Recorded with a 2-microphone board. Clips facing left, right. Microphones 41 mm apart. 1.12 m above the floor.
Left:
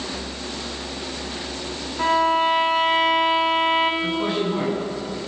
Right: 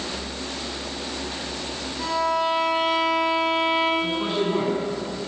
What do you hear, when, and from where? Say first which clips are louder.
2.0 s a violin: left 5 dB; 40° left (ahead or behind), 3.5 m
4.0 s a man speaking: left 1 dB; centre (ahead or behind), 9.5 m